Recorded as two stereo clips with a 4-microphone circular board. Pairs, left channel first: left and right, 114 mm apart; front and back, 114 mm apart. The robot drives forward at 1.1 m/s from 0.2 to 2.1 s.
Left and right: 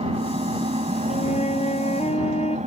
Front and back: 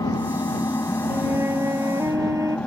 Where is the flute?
110° left; by 2.6 s 115° left.